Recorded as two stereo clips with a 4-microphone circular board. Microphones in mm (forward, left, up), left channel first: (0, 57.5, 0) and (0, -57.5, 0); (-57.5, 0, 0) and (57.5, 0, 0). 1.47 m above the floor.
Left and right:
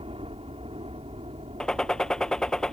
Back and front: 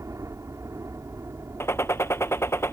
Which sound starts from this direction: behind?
A gunshot, at 1.6 s.